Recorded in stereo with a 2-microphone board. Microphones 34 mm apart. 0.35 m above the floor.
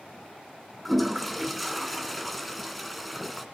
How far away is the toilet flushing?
About 1.5 m.